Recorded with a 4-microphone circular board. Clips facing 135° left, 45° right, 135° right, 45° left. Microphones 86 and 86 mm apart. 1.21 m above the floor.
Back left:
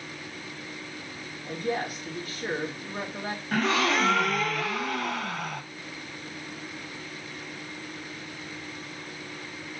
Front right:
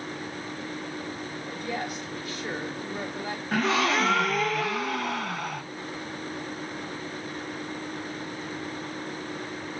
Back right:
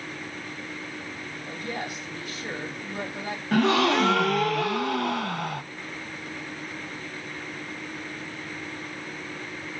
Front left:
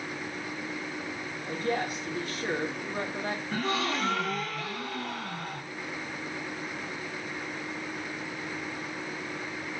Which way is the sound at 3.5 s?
135° right.